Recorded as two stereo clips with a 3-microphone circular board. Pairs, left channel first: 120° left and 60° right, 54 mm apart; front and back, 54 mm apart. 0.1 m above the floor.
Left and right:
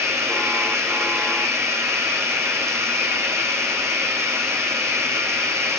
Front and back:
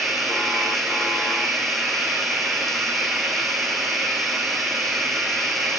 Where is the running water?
85° right, 4.5 m.